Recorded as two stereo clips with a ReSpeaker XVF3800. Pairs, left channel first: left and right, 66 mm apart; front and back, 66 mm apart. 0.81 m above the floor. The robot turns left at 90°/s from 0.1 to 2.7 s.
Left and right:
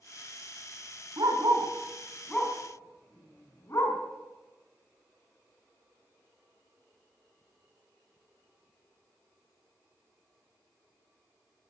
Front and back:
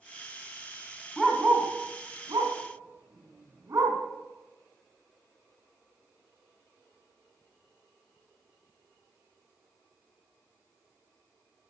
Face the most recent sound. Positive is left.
turn(degrees=135)